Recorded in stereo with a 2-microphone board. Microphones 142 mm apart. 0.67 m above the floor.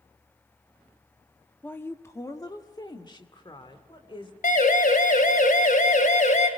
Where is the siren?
80° left, 3 m; by 6.5 s 60° left (ahead or behind), 3 m.